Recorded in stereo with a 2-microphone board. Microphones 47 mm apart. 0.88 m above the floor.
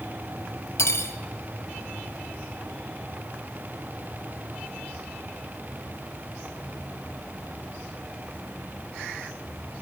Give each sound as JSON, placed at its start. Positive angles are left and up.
{"t": 0.8, "sound": "cutlery clinking", "side_deg": 75, "distance_m": 0.8}